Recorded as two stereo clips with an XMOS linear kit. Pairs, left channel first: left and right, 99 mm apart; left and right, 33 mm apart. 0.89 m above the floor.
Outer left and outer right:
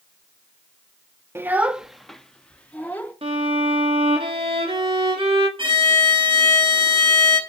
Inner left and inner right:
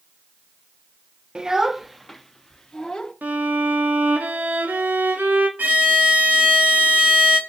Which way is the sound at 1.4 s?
25° right (ahead or behind).